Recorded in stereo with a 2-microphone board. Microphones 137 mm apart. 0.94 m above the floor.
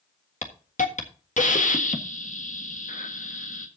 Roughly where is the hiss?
Left.